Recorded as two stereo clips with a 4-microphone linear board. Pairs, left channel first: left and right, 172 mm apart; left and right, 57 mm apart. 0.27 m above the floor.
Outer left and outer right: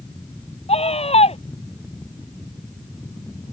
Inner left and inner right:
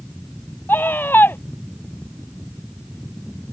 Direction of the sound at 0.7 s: 35° left (ahead or behind).